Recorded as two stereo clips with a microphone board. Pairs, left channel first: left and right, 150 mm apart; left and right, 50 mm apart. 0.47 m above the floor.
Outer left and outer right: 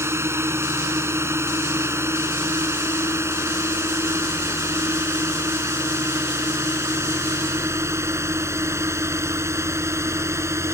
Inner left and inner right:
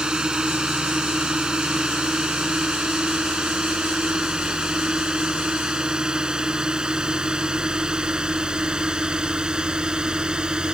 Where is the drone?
15° right (ahead or behind); by 10.8 s 20° right (ahead or behind).